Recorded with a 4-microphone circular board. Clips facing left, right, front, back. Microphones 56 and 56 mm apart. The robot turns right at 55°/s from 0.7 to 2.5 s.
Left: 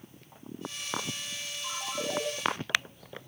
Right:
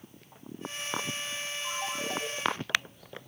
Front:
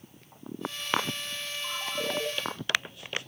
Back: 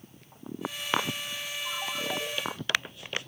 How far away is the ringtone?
About 9 m.